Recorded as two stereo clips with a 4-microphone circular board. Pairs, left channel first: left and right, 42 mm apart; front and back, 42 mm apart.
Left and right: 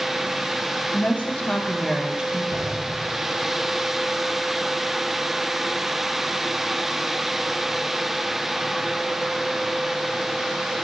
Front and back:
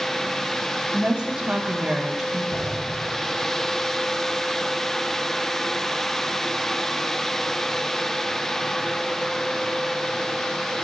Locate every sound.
0.9 s a woman speaking: 120° left, 1.5 m; by 2.4 s 95° right, 1.0 m
2.5 s an explosion: 75° right, 3.5 m